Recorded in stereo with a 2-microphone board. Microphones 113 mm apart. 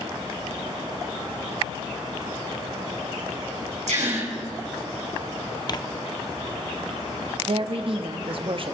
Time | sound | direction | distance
3.9 | a gasp | 85° right | 5.5 m
5.7 | tearing paper | 40° left (ahead or behind) | 0.5 m
7.5 | a woman speaking | 55° right (ahead or behind) | 1.1 m